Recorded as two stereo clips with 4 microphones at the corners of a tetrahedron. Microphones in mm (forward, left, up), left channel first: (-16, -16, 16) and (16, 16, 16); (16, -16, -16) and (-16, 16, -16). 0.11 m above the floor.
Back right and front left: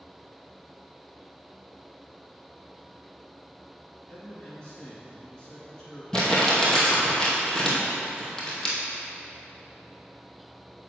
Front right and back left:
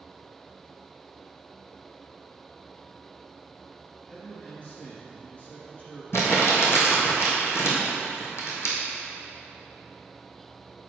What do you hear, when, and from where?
4.1 s a man speaking: 70° right, 1.7 m
6.1 s crumpling: 60° right, 1.9 m